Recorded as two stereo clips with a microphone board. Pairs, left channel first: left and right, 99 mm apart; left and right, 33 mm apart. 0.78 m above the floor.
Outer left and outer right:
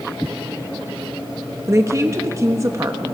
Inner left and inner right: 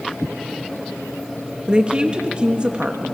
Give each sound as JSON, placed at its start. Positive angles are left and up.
{"t": 1.7, "sound": "a woman speaking", "side_deg": -30, "distance_m": 1.0}